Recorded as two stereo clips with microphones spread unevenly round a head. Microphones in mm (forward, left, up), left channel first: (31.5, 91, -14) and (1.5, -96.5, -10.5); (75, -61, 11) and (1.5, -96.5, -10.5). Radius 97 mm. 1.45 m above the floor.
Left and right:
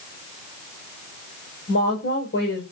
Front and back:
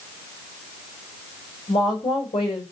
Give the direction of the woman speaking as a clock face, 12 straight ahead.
10 o'clock.